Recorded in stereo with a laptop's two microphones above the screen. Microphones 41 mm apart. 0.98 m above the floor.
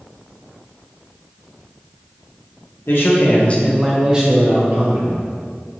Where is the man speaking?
65° left (ahead or behind), 0.8 m; by 5.2 s 50° right (ahead or behind), 1.3 m.